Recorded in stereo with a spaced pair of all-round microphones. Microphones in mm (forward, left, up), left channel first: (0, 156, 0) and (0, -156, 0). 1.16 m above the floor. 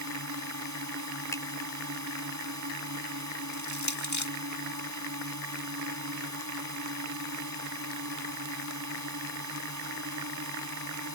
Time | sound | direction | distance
0.0 | a drone | 65° right (ahead or behind) | ?
1.3 | a finger snap | 10° left (ahead or behind) | ?
3.5 | crushing | 70° left (ahead or behind) | ?